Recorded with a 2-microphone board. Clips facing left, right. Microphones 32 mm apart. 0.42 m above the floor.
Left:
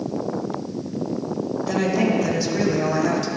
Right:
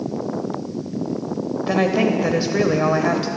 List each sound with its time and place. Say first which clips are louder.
1.7 s a woman speaking: right 3 dB; 35° right (ahead or behind), 1.4 m